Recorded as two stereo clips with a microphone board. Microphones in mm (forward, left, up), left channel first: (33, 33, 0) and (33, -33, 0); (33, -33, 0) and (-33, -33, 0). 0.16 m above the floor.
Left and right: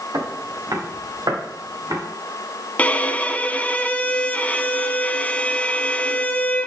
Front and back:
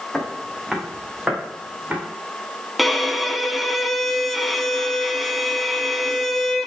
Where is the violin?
90° left, 0.8 m.